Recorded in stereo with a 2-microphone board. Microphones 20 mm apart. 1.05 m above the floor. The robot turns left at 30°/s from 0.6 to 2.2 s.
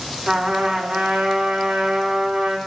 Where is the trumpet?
70° right, 1.5 m; by 2.6 s 115° right, 1.5 m.